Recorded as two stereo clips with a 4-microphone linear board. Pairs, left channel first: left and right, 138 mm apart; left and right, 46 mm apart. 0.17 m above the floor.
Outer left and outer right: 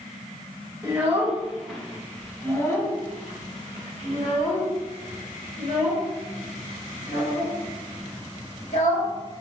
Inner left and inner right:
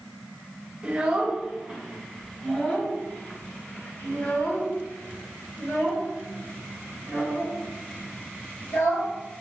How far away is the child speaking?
About 1.2 m.